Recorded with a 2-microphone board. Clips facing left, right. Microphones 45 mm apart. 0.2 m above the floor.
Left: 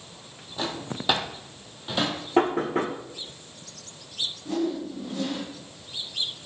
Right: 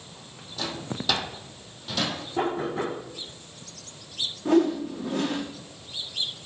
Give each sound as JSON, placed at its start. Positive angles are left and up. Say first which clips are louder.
{"t": 0.6, "sound": "a drawer", "louder": "left 1 dB", "side_deg": 25, "distance_m": 2.0}
{"t": 2.4, "sound": "knocking", "louder": "left 5 dB", "side_deg": 75, "distance_m": 5.0}
{"t": 4.5, "sound": "a whoosh", "louder": "right 7 dB", "side_deg": -70, "distance_m": 4.5}